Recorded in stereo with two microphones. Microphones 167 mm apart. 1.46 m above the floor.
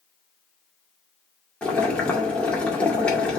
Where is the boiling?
5° left (ahead or behind), 2 m.